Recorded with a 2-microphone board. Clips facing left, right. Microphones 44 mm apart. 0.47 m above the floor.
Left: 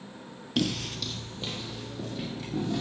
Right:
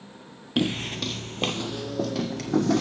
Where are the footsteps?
20° right (ahead or behind), 0.7 m; by 2.8 s 75° right (ahead or behind), 1.7 m.